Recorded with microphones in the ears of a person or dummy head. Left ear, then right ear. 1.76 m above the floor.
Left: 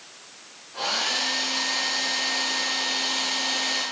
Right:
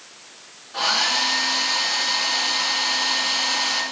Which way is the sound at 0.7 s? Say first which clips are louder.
Right 5 dB; 65° right (ahead or behind).